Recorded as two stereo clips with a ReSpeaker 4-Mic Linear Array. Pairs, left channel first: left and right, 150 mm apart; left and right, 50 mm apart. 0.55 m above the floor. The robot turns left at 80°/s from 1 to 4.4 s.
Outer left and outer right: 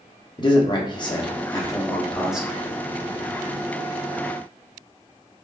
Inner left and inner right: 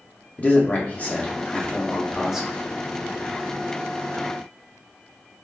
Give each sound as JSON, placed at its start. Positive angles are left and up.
{"t": 0.4, "sound": "a man speaking", "azimuth_deg": 100, "distance_m": 0.7}